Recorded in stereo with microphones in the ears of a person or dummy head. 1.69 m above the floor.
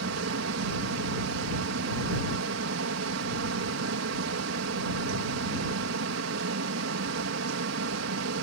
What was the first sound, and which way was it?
A fan, 75° right (ahead or behind).